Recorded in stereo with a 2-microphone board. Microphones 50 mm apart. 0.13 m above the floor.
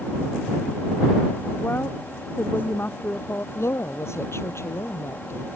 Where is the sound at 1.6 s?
45° left (ahead or behind).